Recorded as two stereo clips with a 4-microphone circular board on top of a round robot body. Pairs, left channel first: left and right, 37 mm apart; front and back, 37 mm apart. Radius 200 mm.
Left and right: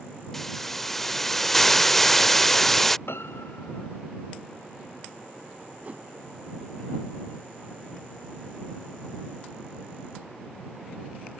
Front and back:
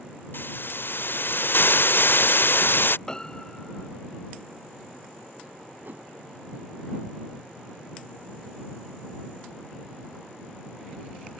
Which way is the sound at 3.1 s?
70° left.